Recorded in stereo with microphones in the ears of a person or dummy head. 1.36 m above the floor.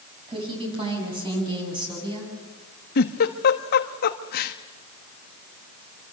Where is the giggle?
60° left (ahead or behind), 1.4 m.